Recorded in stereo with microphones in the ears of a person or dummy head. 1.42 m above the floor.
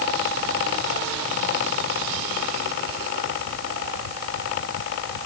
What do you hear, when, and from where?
Only background noise.